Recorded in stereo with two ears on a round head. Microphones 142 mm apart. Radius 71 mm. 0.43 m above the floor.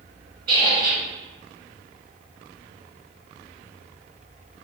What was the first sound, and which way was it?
A squeak, 65° right (ahead or behind).